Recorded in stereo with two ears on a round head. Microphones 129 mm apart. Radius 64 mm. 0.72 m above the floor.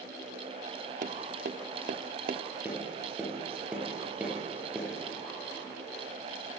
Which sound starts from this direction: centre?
Tapping, at 2.6 s.